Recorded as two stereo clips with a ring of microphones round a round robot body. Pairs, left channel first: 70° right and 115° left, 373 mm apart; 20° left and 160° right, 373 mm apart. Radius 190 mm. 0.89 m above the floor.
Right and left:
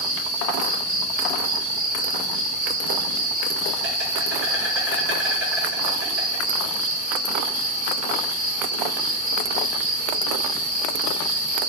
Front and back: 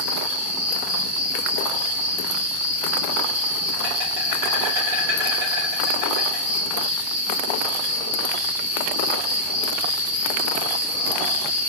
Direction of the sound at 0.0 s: 170° left.